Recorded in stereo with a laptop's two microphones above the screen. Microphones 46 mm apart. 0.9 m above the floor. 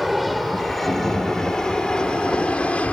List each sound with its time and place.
0.0 s an aircraft: centre (ahead or behind); by 2.9 s 30° left (ahead or behind)